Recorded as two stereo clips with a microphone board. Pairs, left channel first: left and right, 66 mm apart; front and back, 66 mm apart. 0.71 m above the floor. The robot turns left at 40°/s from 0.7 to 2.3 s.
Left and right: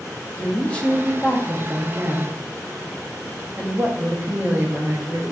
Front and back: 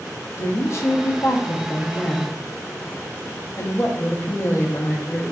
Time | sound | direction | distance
0.4 | a woman speaking | 25° left | 0.7 m